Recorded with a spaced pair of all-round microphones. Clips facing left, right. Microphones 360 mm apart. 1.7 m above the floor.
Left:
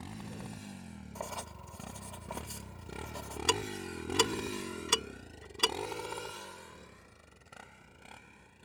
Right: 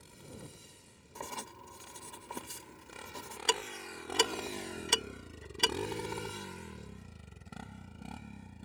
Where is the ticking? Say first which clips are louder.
Left 2 dB; 15° left (ahead or behind).